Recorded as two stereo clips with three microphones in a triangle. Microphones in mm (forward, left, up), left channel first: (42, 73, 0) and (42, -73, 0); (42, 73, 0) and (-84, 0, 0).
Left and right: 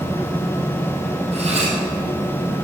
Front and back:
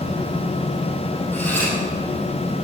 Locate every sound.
1.3 s cutlery clinking: 45° right, 3 m